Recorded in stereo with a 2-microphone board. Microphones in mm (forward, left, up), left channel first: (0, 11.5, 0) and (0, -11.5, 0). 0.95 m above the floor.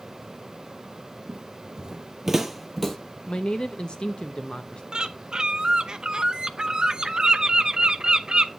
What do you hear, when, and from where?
1.3 s footsteps: 45° right (ahead or behind), 1.5 m; by 3.0 s 10° left (ahead or behind), 1.3 m
3.3 s a man speaking: 50° left (ahead or behind), 0.6 m
4.9 s a bird: 35° right (ahead or behind), 0.7 m